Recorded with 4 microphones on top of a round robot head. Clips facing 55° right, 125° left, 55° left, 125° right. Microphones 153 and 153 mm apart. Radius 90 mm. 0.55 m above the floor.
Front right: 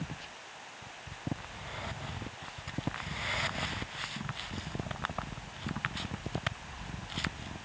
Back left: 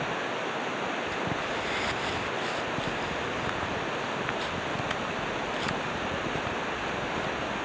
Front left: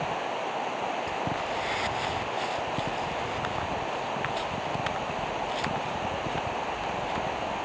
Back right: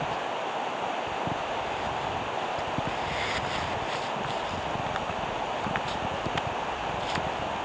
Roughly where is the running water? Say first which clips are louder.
Back left 14 dB, even; behind left.